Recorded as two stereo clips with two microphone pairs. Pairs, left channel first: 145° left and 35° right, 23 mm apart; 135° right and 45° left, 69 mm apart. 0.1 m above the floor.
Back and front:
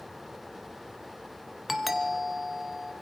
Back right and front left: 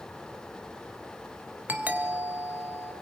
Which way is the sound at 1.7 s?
40° left.